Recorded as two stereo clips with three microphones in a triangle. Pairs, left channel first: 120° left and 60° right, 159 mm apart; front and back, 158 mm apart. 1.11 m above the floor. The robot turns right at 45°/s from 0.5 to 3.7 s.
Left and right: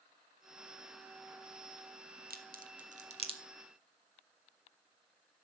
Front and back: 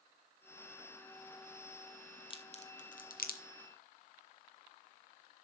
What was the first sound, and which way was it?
A crack, 55° right.